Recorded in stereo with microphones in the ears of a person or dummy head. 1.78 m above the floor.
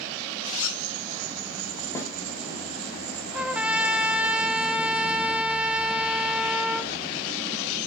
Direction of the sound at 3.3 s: 5° right (ahead or behind).